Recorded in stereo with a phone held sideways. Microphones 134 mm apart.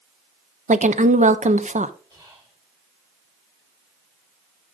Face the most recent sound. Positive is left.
turn(degrees=-35)  # may be behind; listen again after turning